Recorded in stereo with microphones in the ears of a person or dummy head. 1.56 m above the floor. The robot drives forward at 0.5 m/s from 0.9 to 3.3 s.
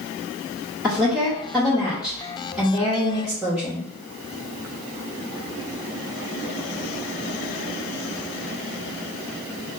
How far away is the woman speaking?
About 2.5 m.